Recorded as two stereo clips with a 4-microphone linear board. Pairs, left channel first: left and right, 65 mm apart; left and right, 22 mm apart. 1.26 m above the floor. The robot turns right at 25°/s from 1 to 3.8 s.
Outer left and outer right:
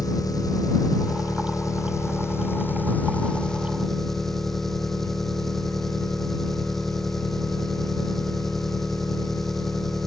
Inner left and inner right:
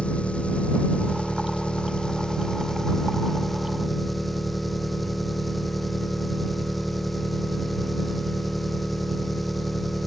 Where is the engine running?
105° left; by 10.1 s 175° left.